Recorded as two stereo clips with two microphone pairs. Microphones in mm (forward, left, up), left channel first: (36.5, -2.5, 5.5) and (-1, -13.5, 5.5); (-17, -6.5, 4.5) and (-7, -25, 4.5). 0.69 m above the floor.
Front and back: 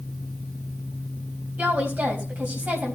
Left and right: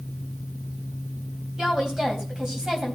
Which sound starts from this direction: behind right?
A woman speaking, at 1.6 s.